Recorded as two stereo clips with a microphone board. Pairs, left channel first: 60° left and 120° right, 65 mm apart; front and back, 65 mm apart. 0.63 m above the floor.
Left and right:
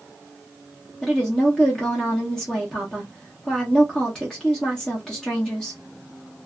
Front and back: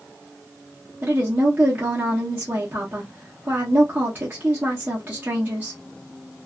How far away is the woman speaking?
About 0.8 m.